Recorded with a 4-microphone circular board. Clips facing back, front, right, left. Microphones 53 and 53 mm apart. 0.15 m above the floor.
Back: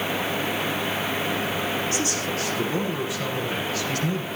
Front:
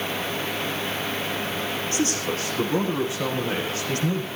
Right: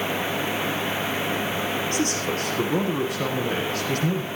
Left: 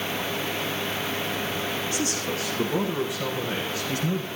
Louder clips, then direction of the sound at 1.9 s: Front 1 dB, right 3 dB; 55° right.